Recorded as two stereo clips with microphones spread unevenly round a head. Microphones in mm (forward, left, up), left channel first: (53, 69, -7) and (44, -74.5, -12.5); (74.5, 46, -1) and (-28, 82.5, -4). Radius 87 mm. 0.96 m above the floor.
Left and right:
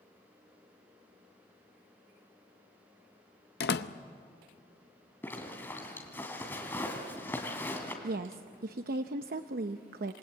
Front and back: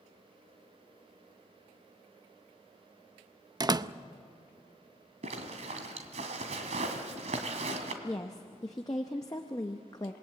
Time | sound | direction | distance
3.6 | a door slam | 110° left | 0.6 m
5.2 | a zipper | 165° left | 2.5 m
8.0 | a woman speaking | 90° right | 0.7 m